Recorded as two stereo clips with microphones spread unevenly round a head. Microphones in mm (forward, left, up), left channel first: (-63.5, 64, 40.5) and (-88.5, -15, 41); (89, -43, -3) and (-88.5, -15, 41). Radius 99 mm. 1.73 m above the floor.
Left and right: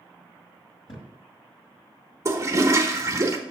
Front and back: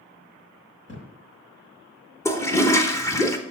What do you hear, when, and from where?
0.9 s a thud: 50° left, 3.5 m
2.2 s a toilet flushing: 95° right, 1.0 m